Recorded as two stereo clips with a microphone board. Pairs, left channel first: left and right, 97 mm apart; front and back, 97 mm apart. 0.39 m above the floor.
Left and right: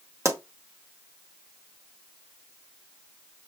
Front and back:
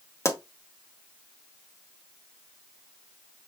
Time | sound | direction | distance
0.2 | a pop | 45° right | 0.9 m